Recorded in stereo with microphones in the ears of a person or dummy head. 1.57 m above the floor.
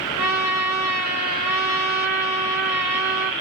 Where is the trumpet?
30° right (ahead or behind), 1.2 m.